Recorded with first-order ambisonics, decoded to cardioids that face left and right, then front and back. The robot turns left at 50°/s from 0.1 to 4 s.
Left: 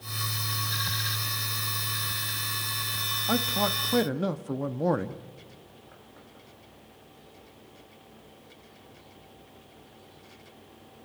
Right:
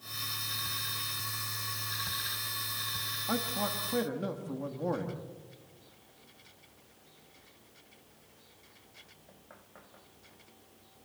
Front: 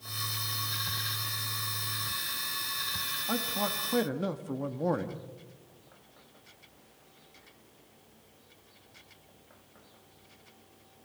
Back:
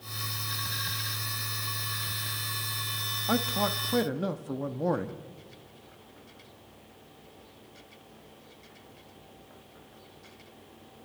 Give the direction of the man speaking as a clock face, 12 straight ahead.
8 o'clock.